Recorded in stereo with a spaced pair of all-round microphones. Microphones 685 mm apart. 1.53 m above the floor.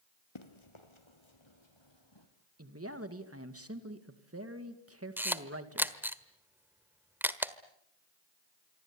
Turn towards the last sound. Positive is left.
turn(degrees=-5)  # may be behind; listen again after turning